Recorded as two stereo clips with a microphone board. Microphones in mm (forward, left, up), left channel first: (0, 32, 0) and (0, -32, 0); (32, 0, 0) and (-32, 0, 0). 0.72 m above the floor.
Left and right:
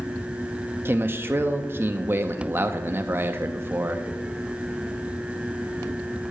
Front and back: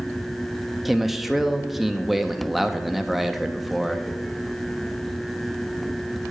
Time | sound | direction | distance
0.8 | a man speaking | 90° right | 0.6 m